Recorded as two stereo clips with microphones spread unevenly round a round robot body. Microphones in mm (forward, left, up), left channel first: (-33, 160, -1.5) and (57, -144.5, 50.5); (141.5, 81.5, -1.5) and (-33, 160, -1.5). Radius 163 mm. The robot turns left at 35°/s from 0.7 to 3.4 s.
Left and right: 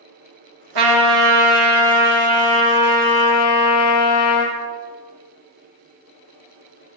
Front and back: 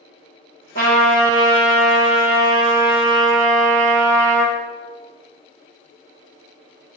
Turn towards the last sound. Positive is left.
turn(degrees=-175)